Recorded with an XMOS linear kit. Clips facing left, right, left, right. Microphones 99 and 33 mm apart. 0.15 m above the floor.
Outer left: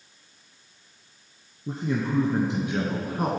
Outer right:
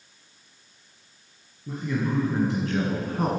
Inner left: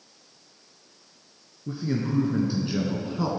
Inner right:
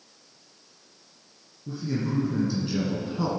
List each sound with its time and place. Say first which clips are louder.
1.7 s a man speaking: outer left 1 dB, inner left 1 dB; 30° left (ahead or behind), 2 m; by 3.3 s centre (ahead or behind), 1.5 m